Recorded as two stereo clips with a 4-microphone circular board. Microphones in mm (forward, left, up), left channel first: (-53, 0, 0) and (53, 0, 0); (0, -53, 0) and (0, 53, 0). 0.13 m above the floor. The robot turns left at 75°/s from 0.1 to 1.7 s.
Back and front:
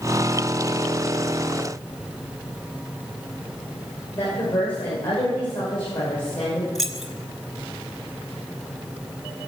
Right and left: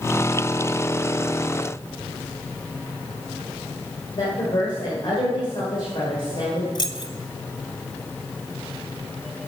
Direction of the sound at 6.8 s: 85° right.